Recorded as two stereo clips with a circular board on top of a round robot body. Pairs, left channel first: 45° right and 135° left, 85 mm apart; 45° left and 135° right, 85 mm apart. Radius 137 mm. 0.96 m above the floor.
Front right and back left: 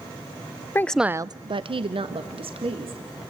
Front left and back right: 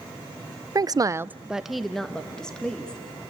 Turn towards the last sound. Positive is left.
turn(degrees=125)